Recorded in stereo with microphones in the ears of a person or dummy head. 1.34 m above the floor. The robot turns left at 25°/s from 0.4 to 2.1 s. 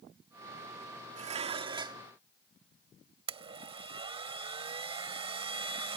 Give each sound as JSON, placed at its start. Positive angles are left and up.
{"t": 1.2, "sound": "dishes clattering", "side_deg": -45}
{"t": 3.3, "sound": "a blender", "side_deg": -35}